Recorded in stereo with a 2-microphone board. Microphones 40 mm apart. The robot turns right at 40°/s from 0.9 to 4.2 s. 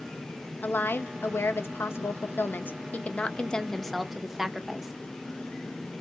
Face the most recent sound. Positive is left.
turn(degrees=-170)